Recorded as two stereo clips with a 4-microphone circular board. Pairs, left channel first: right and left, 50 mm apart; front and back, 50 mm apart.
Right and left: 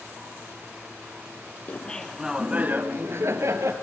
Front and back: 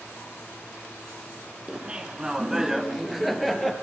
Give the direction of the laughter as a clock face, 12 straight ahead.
4 o'clock.